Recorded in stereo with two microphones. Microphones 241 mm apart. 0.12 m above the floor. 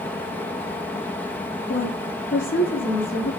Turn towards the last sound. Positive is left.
turn(degrees=55)  # may be behind; listen again after turning